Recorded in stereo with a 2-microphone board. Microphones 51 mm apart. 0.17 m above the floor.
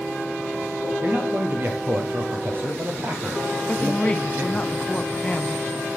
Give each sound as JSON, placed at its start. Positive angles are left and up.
{"t": 1.0, "sound": "a man speaking", "side_deg": -45, "distance_m": 3.5}
{"t": 3.7, "sound": "a woman speaking", "side_deg": 25, "distance_m": 1.1}